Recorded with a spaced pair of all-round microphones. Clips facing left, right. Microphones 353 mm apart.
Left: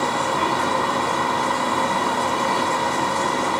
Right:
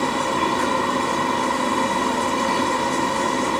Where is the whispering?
I don't hear whispering.